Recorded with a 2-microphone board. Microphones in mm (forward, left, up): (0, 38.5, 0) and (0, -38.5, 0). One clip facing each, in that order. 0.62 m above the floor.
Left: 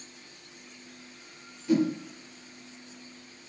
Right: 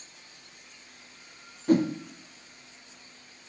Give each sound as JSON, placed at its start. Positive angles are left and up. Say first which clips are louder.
{"t": 1.7, "sound": "a whoosh", "louder": "right 2 dB", "side_deg": -45, "distance_m": 1.1}